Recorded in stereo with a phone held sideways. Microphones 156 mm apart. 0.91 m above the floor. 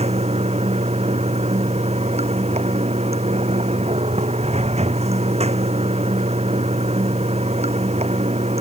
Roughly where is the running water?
Right.